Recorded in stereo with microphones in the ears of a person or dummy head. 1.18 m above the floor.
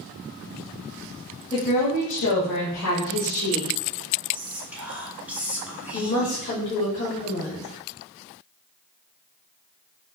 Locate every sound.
1.5 s a woman speaking: 25° left (ahead or behind), 1.1 m; by 3.7 s 70° left (ahead or behind), 1.7 m
4.3 s whispering: 5° right (ahead or behind), 1.1 m
5.9 s a woman speaking: 50° left (ahead or behind), 1.1 m